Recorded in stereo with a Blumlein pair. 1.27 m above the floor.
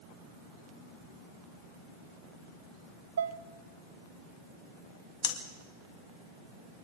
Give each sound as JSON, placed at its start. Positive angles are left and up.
{"t": 3.2, "sound": "dishes clattering", "azimuth_deg": -65, "distance_m": 0.7}
{"t": 5.2, "sound": "breathing", "azimuth_deg": 40, "distance_m": 2.0}